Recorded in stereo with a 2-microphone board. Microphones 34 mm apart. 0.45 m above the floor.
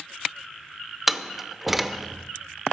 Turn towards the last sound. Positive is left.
turn(degrees=-5)  # may be behind; listen again after turning